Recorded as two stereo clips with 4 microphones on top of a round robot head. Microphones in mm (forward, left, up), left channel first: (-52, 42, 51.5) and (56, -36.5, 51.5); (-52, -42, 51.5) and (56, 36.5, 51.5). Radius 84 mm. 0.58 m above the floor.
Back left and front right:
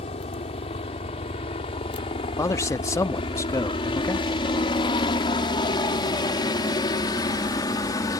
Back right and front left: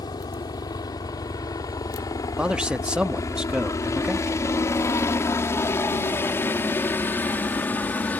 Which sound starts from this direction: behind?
A helicopter, at 0.0 s.